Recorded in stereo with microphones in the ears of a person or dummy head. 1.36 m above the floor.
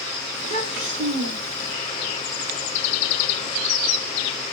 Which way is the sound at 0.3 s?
35° right (ahead or behind).